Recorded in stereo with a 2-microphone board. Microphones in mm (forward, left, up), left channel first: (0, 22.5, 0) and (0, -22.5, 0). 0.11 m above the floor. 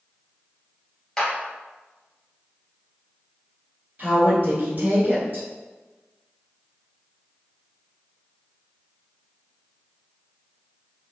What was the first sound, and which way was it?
A clap, 15° left (ahead or behind).